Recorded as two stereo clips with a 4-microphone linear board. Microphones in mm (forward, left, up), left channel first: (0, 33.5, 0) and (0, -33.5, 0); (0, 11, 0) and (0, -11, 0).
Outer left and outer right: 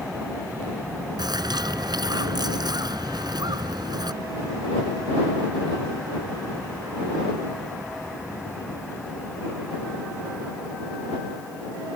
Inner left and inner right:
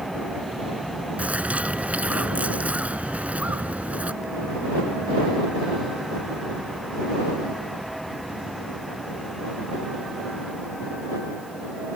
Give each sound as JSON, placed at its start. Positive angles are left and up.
{"t": 1.2, "sound": "a bird", "side_deg": -80}